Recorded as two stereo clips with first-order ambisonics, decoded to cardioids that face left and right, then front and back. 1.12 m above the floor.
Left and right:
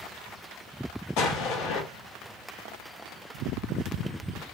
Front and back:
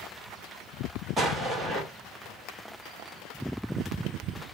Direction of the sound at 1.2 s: 110° left.